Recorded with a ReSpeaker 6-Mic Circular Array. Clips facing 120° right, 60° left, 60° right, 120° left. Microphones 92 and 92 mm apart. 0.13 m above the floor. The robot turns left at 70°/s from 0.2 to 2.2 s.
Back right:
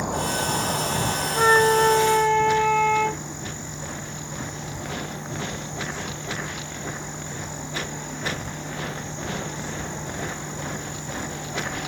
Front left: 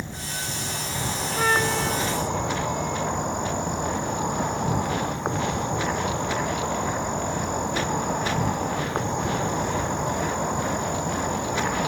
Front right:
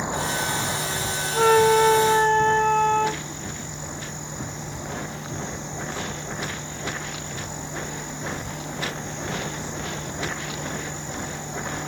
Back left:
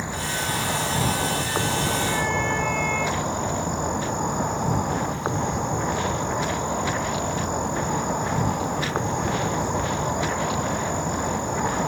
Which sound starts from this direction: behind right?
An insect, at 0.0 s.